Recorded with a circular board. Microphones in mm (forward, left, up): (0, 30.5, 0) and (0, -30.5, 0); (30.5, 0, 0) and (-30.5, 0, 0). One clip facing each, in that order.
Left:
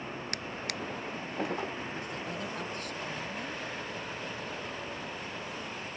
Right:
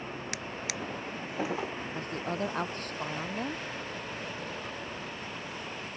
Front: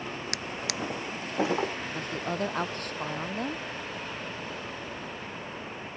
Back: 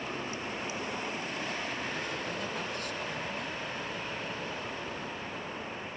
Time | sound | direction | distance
0.3 | a drawer | 5° right | ?
1.9 | a woman speaking | 40° right | ?